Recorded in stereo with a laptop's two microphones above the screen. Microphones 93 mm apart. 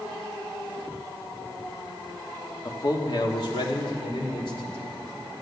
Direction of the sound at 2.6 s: 45° left (ahead or behind).